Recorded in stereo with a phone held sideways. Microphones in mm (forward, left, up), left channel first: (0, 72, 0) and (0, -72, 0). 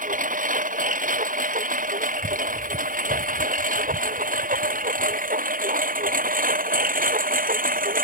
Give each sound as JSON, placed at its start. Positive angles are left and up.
{"t": 0.0, "sound": "a lawn mower", "side_deg": -65}